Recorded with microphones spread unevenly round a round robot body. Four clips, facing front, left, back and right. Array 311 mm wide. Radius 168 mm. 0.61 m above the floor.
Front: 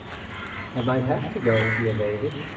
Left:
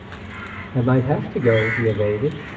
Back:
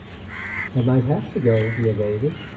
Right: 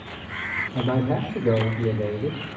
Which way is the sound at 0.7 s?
140° left.